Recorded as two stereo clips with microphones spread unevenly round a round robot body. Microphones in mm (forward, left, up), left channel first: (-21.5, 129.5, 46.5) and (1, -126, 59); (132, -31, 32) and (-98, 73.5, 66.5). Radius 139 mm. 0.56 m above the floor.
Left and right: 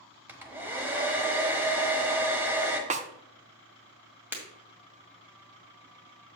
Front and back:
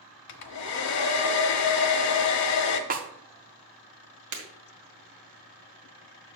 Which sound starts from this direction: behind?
Breaking glass, at 4.3 s.